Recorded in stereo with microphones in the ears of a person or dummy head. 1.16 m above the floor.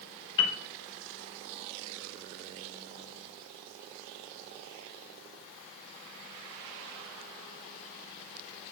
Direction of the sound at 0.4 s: 75° left (ahead or behind).